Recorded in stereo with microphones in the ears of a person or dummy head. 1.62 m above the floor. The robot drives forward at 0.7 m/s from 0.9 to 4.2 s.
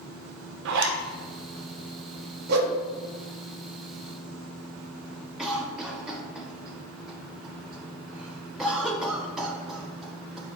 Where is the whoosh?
60° right (ahead or behind), 0.9 m; by 2.8 s 70° right (ahead or behind), 0.9 m.